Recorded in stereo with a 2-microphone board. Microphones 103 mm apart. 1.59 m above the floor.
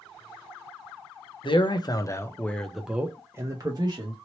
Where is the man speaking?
55° left (ahead or behind), 0.8 m; by 4.2 s 45° right (ahead or behind), 1.0 m.